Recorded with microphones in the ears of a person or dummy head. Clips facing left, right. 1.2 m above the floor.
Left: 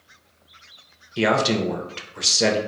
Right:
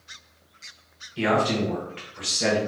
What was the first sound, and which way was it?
A man speaking, 55° left (ahead or behind).